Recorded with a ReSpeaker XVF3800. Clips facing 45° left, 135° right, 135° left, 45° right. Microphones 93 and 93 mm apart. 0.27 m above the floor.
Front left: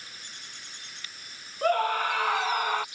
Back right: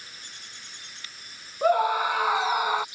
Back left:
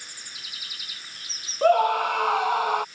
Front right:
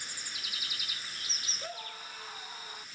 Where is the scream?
150° left; by 2.9 s 145° left.